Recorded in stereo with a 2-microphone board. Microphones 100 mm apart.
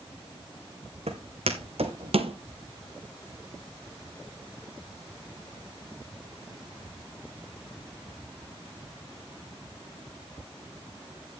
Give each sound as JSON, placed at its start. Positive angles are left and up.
{"t": 1.1, "sound": "footsteps", "side_deg": -80, "distance_m": 2.5}